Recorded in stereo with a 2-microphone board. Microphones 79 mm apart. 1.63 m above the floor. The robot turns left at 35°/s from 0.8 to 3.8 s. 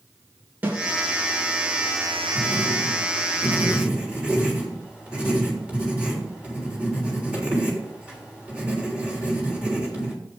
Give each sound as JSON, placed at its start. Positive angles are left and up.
{"t": 0.6, "sound": "a snare drum", "side_deg": -20, "distance_m": 3.0}
{"t": 2.4, "sound": "writing", "side_deg": -65, "distance_m": 3.0}